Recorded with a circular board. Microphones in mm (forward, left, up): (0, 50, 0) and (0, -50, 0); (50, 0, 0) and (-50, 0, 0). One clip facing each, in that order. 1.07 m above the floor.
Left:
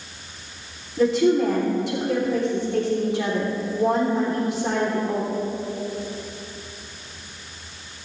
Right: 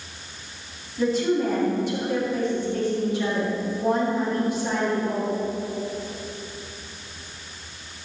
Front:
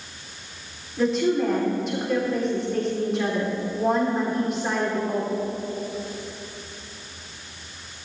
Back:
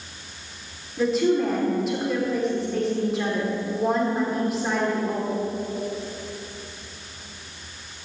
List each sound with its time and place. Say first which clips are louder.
1.0 s a woman speaking: left 4 dB, back 1 dB; 90° left, 3 m